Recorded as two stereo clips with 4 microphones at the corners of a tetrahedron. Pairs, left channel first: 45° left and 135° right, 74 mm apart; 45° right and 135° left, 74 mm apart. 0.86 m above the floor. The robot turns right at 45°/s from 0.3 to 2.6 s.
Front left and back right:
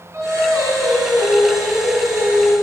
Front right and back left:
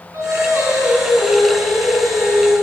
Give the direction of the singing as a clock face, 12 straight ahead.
6 o'clock.